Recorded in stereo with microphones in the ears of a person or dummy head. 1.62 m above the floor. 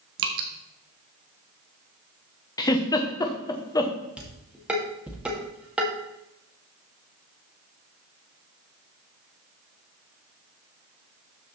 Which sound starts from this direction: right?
Dripping, at 0.2 s.